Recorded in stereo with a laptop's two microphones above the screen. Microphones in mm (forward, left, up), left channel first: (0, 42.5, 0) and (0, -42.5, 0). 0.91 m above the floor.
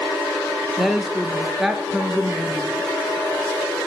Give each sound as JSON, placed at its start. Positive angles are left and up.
{"t": 0.8, "sound": "a woman speaking", "side_deg": -5, "distance_m": 0.5}